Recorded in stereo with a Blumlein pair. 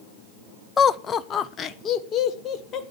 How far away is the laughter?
About 0.5 m.